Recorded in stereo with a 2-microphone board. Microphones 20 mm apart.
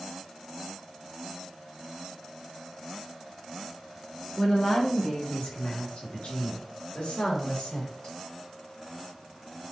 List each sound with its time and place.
4.4 s a woman speaking: 35° left (ahead or behind), 1.0 m; by 8.1 s 65° left (ahead or behind), 2.5 m